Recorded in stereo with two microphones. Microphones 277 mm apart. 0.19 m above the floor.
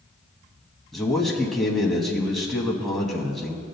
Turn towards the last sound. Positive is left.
turn(degrees=0)  # may be behind; listen again after turning